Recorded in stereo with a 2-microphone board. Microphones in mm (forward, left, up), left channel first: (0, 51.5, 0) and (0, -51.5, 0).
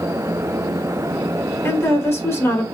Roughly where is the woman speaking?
Left.